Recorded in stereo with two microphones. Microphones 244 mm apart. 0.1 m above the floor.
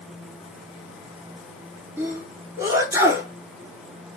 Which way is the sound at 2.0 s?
10° right (ahead or behind).